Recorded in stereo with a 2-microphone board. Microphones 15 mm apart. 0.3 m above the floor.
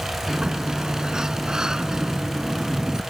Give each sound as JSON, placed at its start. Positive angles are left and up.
{"t": 0.3, "sound": "a sliding door", "side_deg": -60}